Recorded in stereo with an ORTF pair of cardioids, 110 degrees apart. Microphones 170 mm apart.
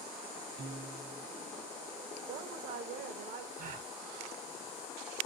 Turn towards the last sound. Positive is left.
turn(degrees=-60)